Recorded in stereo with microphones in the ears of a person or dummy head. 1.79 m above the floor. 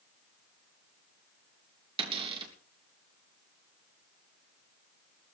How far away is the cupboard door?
About 3 m.